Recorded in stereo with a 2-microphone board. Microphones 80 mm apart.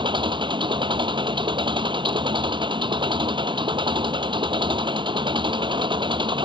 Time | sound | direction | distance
0.0 | an engine running | 80° right | ?